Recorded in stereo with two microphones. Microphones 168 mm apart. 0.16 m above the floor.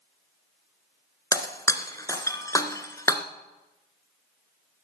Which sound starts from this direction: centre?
Breaking glass, at 1.3 s.